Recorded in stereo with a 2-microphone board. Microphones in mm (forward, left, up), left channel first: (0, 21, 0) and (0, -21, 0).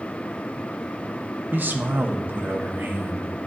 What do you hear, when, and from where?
1.5 s a man speaking: 50° right (ahead or behind), 1.0 m